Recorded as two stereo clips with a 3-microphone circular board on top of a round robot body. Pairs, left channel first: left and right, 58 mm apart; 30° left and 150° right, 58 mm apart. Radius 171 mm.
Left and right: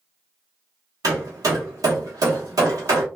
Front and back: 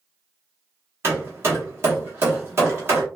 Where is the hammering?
105° right, 0.9 m.